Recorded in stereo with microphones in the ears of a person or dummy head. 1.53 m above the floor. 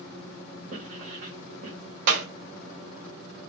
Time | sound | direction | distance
0.7 | writing | 45° right (ahead or behind) | 1.0 m
2.1 | a clap | 60° right (ahead or behind) | 0.6 m